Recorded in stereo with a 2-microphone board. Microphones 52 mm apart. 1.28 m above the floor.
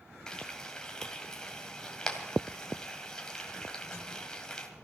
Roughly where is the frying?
Centre.